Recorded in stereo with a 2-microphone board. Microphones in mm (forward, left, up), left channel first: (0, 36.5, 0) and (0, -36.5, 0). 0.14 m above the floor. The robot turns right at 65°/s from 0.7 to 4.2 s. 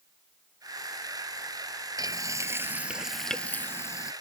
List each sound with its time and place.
2.0 s frying: 75° right; by 4.1 s 60° left